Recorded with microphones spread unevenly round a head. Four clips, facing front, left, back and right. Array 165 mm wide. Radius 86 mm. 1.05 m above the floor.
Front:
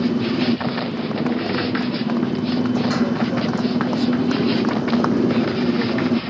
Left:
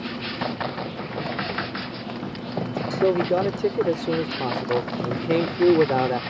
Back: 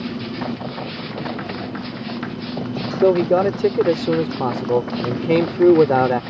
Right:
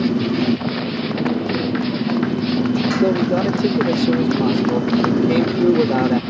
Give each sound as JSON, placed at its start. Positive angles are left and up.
{"t": 0.0, "sound": "a motorcycle", "azimuth_deg": -55}
{"t": 3.0, "sound": "a man speaking", "azimuth_deg": 175}